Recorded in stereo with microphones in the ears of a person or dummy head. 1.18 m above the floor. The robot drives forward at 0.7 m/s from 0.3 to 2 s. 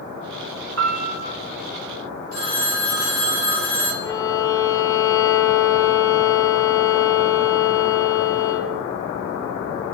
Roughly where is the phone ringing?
Right.